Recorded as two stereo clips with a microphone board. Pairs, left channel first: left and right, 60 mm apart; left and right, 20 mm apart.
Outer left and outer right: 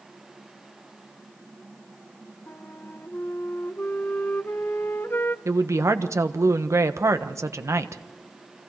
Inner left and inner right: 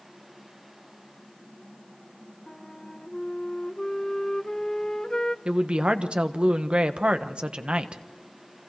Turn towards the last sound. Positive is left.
turn(degrees=-55)  # may be behind; listen again after turning